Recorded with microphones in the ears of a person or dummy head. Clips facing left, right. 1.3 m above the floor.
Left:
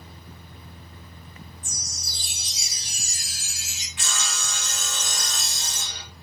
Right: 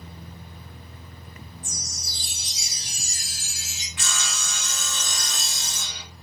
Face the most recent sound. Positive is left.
turn(degrees=-55)  # may be behind; listen again after turning